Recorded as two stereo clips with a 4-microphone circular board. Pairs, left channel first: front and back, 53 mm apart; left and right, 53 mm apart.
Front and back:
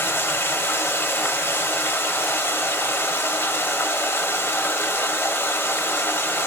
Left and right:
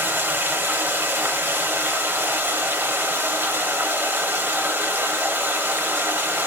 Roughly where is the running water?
Ahead right.